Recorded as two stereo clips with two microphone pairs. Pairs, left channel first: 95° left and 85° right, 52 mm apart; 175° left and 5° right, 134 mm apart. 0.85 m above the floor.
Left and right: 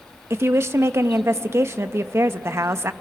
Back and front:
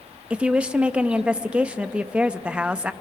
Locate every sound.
0.3 s a woman speaking: 85° right, 0.6 m